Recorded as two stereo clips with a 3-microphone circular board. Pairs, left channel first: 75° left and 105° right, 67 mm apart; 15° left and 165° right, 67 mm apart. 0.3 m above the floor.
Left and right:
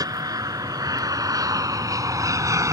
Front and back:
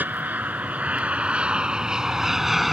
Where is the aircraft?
105° right; by 2.7 s 75° right.